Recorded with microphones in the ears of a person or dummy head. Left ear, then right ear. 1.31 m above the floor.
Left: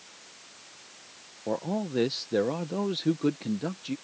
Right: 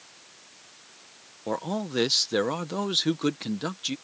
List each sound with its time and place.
1.5 s a man speaking: 45° right (ahead or behind)